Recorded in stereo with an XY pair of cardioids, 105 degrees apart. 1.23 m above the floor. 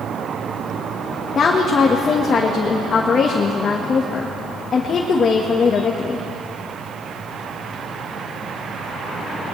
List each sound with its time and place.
1.4 s a woman speaking: 50° left, 1.5 m